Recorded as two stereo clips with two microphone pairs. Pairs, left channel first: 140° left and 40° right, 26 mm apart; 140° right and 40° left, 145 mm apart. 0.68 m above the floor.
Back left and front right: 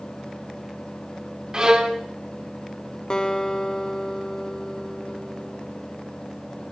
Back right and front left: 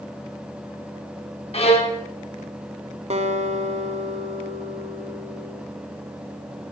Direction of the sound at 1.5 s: 100° right.